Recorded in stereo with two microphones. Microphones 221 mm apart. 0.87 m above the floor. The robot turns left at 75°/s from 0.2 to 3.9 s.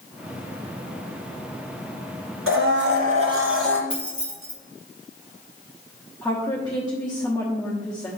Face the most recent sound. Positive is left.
turn(degrees=15)  # may be behind; listen again after turning